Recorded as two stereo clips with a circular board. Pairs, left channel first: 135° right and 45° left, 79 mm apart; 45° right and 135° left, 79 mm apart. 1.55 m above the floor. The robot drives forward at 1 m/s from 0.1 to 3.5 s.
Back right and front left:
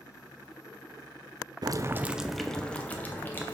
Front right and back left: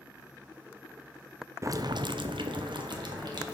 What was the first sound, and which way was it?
Boiling, 80° left.